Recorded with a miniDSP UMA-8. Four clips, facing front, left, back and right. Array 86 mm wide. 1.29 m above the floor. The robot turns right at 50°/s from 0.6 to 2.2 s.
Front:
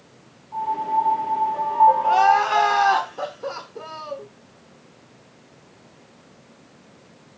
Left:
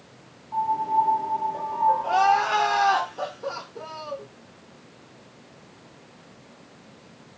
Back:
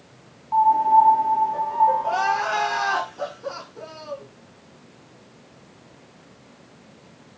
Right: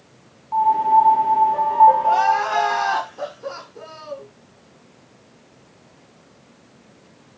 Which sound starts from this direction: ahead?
Crying, at 2.0 s.